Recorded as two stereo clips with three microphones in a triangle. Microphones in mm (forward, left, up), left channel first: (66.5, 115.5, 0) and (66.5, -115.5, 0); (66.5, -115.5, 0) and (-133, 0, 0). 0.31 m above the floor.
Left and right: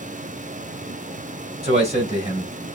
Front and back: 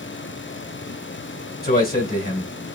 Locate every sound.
1.6 s a man speaking: 45° right, 1.9 m